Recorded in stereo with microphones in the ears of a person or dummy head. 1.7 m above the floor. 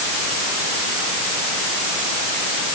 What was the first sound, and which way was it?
Only background noise.